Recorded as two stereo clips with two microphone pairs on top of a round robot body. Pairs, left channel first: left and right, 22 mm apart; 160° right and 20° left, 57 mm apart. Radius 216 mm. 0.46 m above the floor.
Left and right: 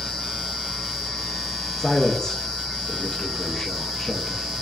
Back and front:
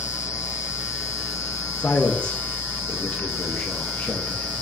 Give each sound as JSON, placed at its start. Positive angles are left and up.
{"t": 1.8, "sound": "a man speaking", "azimuth_deg": 135, "distance_m": 0.8}